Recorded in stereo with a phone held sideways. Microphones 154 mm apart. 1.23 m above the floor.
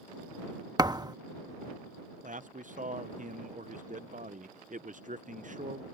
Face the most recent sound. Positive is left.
turn(degrees=-55)  # may be behind; listen again after turning